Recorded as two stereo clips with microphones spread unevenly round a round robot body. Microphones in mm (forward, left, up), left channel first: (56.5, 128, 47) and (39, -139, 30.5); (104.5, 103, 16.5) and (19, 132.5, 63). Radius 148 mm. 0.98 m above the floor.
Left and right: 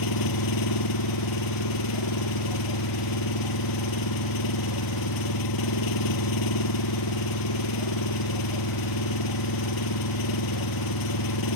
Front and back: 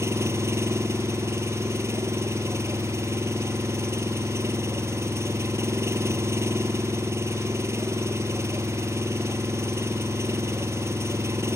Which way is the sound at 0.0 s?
105° left.